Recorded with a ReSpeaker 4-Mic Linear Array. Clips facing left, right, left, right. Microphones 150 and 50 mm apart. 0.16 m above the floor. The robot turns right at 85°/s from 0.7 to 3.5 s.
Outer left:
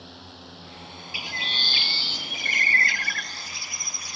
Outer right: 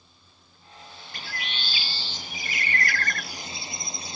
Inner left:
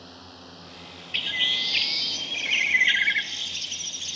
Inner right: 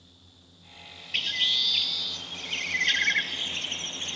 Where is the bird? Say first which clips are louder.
Outer left 1 dB, inner left 2 dB; 5° left; by 4.2 s 155° right.